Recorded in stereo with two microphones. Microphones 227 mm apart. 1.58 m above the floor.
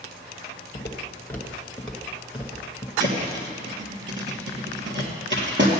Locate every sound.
0.7 s footsteps: 20° left (ahead or behind), 1.7 m; by 2.9 s 15° right (ahead or behind), 1.6 m
3.0 s a thud: 55° right (ahead or behind), 2.5 m